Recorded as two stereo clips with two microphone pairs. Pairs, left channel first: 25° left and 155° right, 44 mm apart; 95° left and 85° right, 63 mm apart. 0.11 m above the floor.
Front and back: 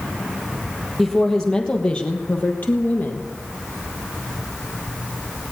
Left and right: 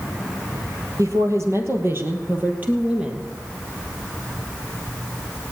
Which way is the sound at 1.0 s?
60° right.